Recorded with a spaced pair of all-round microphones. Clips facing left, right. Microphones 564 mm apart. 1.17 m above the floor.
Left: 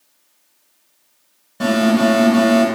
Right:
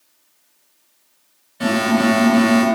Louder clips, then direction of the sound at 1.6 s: Left 2 dB; 65° left (ahead or behind).